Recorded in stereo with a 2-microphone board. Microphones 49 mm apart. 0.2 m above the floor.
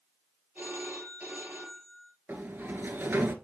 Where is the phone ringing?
35° right (ahead or behind), 3 m.